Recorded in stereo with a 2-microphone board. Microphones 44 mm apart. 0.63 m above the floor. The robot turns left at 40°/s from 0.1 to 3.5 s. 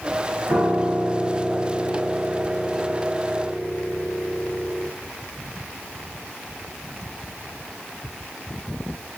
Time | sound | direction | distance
0.5 | a piano | 105° right | 3.5 m